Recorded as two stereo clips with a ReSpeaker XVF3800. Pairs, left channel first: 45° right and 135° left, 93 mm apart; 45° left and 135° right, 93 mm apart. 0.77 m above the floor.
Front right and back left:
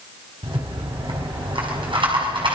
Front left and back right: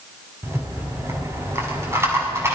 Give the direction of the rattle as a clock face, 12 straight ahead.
7 o'clock.